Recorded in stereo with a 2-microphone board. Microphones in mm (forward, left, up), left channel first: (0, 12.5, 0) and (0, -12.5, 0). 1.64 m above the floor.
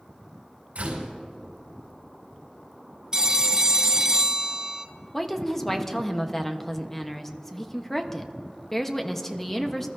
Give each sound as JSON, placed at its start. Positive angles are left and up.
{"t": 0.8, "sound": "a door slam", "side_deg": -60, "distance_m": 5.5}
{"t": 3.1, "sound": "a phone ringing", "side_deg": -25, "distance_m": 0.9}
{"t": 5.1, "sound": "a woman speaking", "side_deg": 10, "distance_m": 1.0}